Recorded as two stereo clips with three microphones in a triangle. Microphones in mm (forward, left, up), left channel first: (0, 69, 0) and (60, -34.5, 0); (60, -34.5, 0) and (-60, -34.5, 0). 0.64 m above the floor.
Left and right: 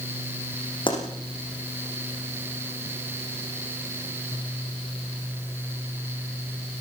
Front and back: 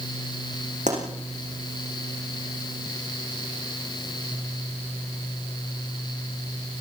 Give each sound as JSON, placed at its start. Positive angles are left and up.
{"t": 0.9, "sound": "a pop", "azimuth_deg": 170, "distance_m": 8.0}